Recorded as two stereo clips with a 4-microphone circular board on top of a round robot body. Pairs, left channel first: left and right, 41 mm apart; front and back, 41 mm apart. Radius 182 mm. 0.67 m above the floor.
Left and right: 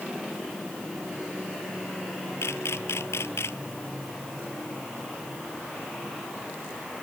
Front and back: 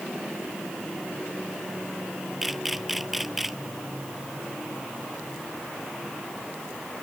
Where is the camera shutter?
95° left.